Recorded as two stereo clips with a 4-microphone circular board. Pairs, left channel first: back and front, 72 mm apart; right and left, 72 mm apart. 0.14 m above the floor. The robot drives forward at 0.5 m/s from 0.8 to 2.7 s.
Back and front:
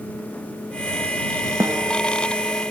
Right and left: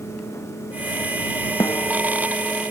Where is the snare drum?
45° right.